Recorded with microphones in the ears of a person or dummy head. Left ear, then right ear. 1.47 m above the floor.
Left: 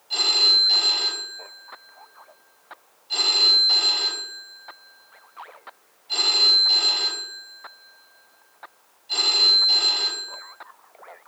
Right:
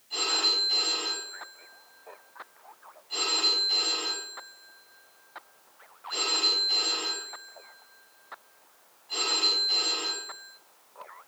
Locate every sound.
0.1 s a phone ringing: 40° left (ahead or behind), 7.5 m